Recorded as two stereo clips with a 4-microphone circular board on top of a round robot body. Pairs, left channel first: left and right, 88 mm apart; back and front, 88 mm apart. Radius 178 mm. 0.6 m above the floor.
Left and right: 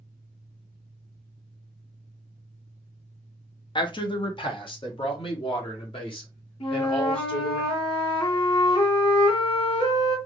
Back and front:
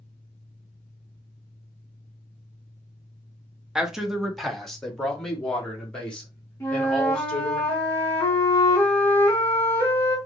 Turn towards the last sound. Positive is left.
turn(degrees=115)